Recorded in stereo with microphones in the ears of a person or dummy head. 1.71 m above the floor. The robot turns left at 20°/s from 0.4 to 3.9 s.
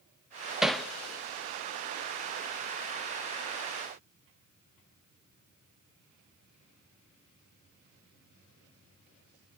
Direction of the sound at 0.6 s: 10° right (ahead or behind).